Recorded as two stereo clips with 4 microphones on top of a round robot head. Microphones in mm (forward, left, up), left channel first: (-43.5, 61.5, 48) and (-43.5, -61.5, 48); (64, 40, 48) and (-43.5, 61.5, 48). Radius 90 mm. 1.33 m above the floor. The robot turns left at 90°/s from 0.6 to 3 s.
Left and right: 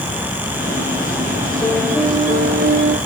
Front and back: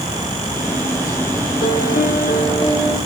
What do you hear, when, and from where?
1.6 s a piano: 20° left, 2.5 m; by 3.0 s 100° right, 2.5 m